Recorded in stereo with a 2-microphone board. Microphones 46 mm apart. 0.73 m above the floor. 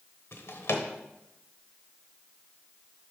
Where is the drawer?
60° left (ahead or behind), 0.9 m.